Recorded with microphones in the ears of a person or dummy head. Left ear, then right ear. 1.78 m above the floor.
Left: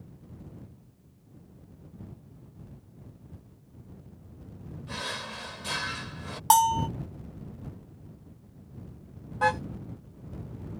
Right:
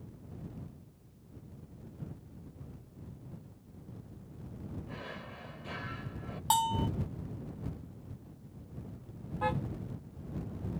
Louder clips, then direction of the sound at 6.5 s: Left 8 dB; 35° left (ahead or behind).